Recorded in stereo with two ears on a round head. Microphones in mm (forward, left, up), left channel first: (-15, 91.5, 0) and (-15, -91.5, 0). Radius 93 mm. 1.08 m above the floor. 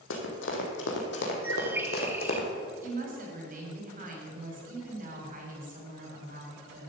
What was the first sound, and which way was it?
Running footsteps, 65° left (ahead or behind).